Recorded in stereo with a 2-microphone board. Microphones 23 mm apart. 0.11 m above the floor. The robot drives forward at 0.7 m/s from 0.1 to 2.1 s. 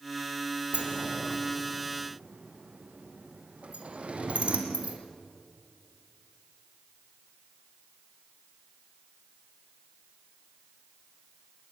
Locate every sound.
0.7 s a sliding door: 75° right (ahead or behind), 3.5 m; by 5.0 s 60° right (ahead or behind), 3.5 m